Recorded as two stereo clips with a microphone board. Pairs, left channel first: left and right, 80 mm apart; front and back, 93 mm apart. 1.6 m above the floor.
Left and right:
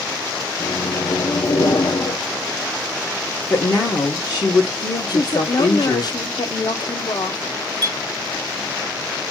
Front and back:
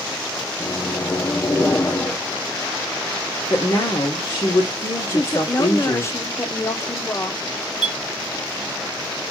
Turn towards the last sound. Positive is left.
turn(degrees=-100)